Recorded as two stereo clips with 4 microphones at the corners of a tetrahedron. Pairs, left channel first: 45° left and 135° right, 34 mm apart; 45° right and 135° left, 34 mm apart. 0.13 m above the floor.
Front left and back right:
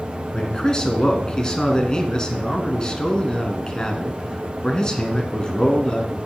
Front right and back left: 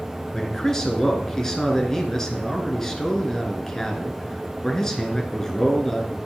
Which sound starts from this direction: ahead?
A man speaking, at 0.3 s.